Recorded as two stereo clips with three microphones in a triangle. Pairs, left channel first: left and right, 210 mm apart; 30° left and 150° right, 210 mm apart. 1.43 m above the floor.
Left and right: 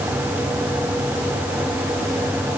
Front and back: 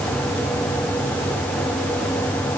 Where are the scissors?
No scissors in this recording.